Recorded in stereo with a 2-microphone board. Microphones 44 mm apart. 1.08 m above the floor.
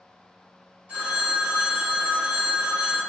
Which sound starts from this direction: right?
A phone ringing, at 0.9 s.